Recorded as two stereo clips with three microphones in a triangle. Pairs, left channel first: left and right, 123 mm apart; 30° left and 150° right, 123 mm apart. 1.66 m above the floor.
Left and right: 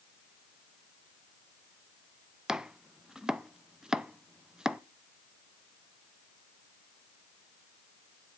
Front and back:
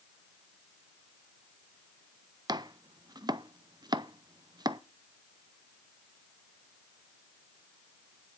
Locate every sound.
2.5 s chopping: 170° right, 0.5 m